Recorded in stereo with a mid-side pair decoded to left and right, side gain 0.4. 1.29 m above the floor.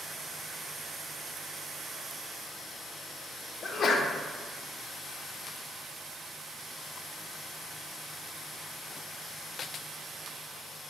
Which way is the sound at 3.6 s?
55° left.